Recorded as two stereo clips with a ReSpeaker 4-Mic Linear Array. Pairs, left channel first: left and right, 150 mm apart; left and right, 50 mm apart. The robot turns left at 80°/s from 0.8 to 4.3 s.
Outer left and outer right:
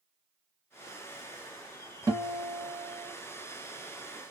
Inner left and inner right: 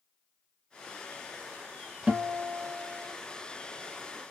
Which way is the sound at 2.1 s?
45° right.